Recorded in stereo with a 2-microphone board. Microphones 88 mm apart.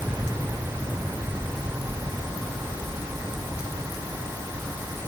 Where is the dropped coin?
I don't hear a dropped coin.